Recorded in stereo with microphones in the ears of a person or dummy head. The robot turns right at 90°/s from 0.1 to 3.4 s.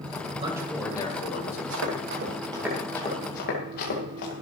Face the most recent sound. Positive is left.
turn(degrees=50)  # may be behind; listen again after turning